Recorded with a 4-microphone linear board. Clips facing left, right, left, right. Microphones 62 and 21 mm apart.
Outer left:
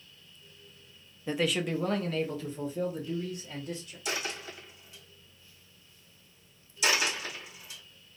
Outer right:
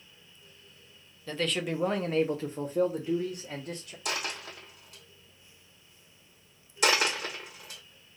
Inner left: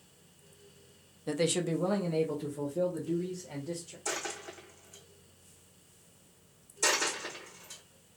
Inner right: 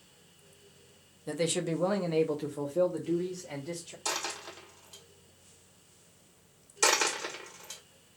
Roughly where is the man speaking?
Centre.